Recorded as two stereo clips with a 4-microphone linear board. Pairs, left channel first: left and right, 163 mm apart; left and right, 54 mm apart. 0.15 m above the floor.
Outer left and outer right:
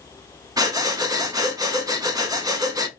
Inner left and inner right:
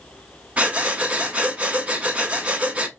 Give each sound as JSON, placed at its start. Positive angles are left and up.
{"t": 0.6, "sound": "breathing", "side_deg": -25, "distance_m": 0.5}